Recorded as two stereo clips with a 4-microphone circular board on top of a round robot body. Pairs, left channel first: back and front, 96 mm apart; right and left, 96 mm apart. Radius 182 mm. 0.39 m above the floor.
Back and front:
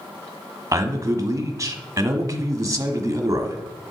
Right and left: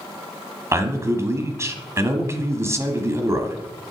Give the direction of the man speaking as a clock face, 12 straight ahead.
11 o'clock.